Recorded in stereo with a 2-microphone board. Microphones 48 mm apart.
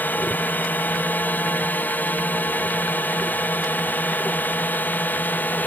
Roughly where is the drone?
Left.